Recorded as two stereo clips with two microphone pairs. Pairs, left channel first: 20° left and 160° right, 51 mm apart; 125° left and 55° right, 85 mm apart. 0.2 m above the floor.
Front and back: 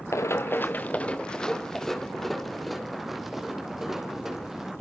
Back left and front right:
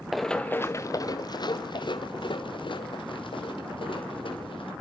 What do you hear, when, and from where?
0.1 s running footsteps: 35° left, 0.7 m; by 4.7 s 115° left, 4 m